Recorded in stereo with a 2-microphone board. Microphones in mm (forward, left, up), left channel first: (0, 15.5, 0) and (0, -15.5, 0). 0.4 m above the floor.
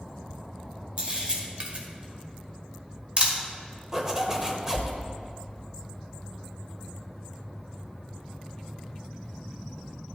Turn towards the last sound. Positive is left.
turn(degrees=-20)  # may be behind; listen again after turning